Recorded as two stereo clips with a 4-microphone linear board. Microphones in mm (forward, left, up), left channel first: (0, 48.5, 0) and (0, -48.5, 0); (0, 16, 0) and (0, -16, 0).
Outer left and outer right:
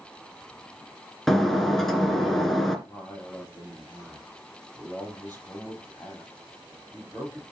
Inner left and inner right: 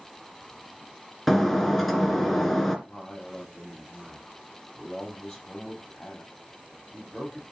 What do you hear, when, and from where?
1.3 s breaking glass: centre (ahead or behind), 2.0 m
2.9 s a man speaking: 15° left (ahead or behind), 7 m